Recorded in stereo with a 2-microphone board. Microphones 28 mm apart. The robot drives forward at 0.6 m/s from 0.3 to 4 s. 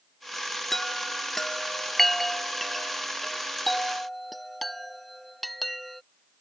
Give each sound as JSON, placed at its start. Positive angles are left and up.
{"t": 0.7, "sound": "a chime", "side_deg": 10}